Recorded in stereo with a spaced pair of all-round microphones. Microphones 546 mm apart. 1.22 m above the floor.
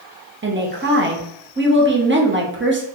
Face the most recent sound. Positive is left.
turn(degrees=-20)  # may be behind; listen again after turning